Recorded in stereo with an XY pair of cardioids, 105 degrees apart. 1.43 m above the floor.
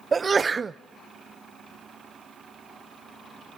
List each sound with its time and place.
0.1 s a sneeze: 30° right, 0.6 m